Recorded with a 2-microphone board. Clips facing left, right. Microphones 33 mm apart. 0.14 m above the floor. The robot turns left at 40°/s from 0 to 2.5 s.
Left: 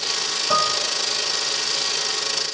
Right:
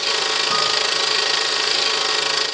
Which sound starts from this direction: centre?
Dishes clattering, at 0.5 s.